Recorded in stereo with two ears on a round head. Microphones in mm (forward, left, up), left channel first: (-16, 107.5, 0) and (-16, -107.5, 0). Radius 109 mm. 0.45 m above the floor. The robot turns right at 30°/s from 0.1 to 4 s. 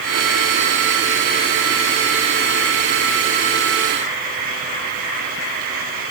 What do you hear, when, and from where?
Only background noise.